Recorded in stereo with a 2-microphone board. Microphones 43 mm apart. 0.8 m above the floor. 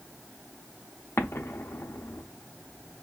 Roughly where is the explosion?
Left.